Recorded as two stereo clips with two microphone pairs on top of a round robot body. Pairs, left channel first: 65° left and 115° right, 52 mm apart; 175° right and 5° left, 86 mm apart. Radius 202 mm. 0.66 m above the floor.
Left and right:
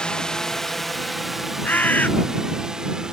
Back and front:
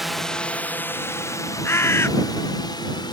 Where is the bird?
125° left.